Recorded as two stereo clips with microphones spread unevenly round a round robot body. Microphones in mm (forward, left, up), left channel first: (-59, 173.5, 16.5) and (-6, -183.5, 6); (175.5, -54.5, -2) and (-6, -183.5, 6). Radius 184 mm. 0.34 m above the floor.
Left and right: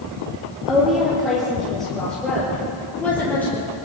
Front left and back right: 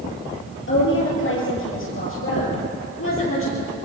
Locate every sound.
0.7 s a woman speaking: 5° left, 7 m; by 3.8 s 15° left, 8.5 m